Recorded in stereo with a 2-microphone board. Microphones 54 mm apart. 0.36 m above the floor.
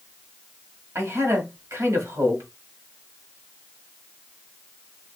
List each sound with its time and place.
0.9 s a man speaking: 60° right (ahead or behind), 1.6 m